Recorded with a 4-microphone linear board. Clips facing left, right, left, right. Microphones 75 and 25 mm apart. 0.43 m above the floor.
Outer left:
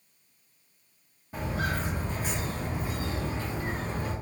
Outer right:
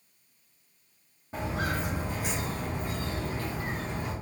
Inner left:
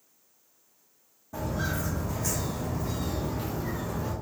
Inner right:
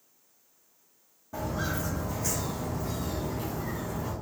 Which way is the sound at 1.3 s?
25° right (ahead or behind).